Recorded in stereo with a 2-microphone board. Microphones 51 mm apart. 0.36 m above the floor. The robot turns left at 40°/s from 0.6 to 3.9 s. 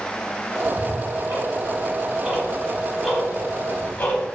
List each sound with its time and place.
0.6 s ticking: 70° right (ahead or behind), 1.0 m; by 4.2 s 35° left (ahead or behind), 1.0 m